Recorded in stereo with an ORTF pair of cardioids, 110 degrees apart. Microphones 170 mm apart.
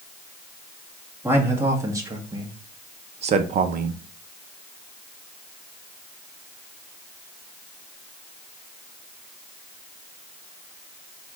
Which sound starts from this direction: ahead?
A man speaking, at 1.2 s.